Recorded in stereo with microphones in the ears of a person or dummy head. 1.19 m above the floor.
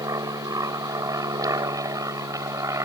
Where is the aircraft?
15° right (ahead or behind).